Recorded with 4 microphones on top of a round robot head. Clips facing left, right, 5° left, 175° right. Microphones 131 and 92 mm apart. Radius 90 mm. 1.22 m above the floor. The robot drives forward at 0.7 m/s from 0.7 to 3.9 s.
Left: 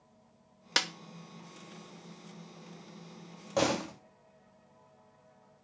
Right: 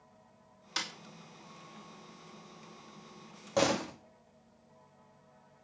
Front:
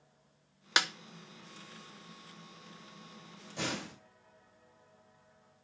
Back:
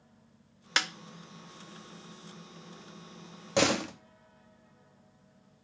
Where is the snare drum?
80° left, 1.7 m; by 0.9 s 85° left, 1.7 m.